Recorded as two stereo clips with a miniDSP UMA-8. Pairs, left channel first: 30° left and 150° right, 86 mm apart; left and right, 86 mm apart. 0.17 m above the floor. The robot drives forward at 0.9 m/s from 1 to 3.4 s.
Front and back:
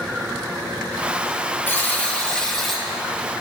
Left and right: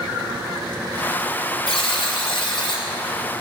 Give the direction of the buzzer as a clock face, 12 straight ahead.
9 o'clock.